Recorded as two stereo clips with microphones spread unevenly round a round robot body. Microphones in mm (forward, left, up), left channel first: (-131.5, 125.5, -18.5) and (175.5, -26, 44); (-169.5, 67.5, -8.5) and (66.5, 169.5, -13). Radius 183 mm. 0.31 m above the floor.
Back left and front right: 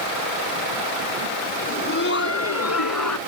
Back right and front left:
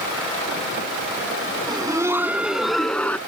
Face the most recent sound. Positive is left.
turn(degrees=120)